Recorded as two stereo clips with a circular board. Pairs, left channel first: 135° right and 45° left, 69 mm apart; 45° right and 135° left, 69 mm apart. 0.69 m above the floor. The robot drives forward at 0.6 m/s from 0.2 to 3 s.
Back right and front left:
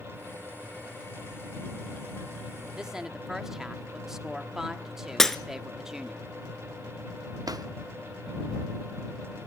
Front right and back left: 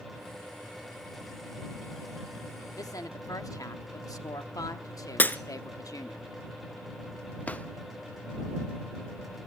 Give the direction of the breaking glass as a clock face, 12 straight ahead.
2 o'clock.